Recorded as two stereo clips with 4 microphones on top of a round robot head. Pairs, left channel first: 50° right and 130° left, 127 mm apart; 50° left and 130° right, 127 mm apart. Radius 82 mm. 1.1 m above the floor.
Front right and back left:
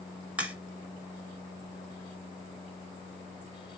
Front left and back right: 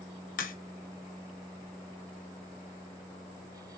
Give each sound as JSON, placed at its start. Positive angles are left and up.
{"t": 0.4, "sound": "a crack", "azimuth_deg": 50, "distance_m": 3.5}